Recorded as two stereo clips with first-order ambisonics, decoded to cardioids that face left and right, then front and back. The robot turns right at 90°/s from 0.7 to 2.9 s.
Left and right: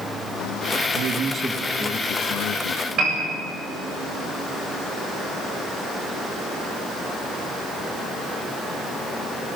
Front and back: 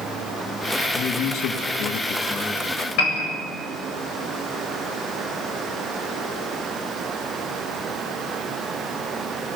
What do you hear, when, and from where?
0.9 s a man speaking: 60° right, 1.9 m; by 2.9 s 110° left, 1.9 m
3.0 s a piano: 35° right, 7.5 m